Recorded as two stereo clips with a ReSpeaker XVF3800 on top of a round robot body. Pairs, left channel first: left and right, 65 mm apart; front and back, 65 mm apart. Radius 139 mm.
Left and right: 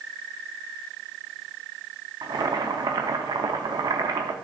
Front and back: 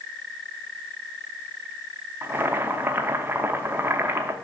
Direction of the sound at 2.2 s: 120° right.